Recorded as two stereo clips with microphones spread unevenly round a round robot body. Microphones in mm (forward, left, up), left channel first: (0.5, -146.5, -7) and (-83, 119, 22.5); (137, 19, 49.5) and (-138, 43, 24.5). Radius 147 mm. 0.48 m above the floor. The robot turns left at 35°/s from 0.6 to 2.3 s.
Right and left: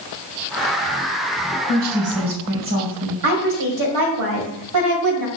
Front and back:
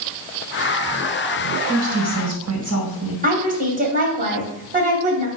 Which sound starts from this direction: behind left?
A woman speaking, at 3.2 s.